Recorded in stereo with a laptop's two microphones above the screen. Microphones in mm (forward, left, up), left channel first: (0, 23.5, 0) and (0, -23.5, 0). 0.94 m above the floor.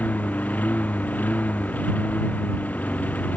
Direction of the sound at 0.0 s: 35° left (ahead or behind).